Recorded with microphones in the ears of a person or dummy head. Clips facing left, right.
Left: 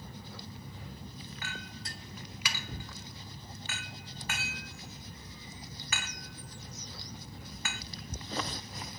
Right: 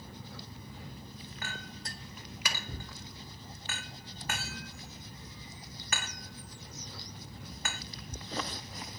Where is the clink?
40° right (ahead or behind), 1.0 m.